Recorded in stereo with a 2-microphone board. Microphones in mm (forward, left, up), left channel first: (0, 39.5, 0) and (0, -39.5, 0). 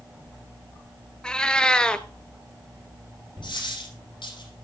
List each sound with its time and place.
1.2 s a cat meowing: 10° left (ahead or behind), 0.7 m
3.4 s a dropped coin: 80° left, 9.5 m